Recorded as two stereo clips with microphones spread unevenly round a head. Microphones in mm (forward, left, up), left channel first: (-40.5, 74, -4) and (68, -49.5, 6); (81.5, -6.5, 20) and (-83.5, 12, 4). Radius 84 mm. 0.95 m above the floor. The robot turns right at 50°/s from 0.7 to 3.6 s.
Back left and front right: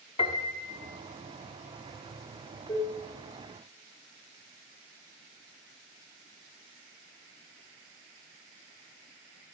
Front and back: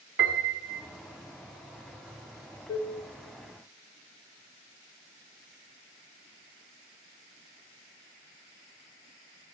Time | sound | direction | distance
0.2 | a piano | 165° right | 1.0 m
2.7 | dishes clattering | 55° left | 1.1 m